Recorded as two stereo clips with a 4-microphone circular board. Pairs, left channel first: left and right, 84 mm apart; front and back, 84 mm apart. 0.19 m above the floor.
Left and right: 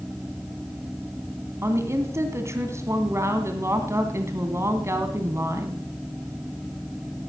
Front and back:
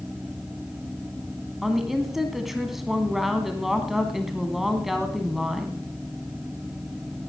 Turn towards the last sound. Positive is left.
turn(degrees=-95)